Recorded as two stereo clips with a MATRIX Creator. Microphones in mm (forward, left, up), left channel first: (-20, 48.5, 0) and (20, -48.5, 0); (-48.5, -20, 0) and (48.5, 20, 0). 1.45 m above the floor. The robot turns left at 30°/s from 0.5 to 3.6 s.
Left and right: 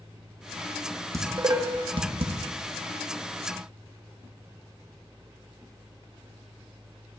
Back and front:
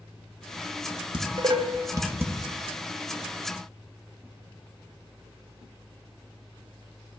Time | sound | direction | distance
1.1 | dishes clattering | 10° right | 1.0 m